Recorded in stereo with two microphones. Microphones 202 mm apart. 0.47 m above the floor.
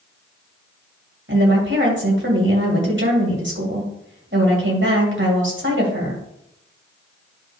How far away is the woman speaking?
About 3 m.